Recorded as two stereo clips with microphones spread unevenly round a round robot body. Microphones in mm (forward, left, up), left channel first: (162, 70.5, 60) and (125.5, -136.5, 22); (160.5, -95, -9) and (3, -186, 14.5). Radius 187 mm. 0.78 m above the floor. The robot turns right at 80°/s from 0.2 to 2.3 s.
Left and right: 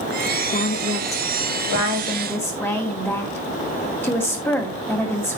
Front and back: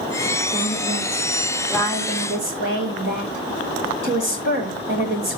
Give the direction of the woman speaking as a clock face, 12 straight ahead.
11 o'clock.